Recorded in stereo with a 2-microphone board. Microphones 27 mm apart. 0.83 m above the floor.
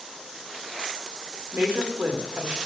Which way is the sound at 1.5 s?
75° right (ahead or behind).